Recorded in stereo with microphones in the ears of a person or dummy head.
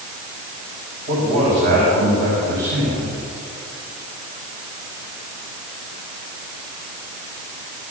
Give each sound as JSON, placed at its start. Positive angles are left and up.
{"t": 1.1, "sound": "a man speaking", "side_deg": -55, "distance_m": 7.0}